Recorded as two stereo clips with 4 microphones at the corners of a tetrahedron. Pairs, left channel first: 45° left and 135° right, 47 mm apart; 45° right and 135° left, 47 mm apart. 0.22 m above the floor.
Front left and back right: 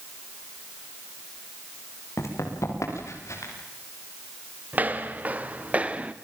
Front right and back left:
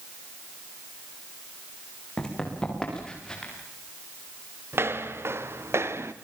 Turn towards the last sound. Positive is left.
turn(degrees=160)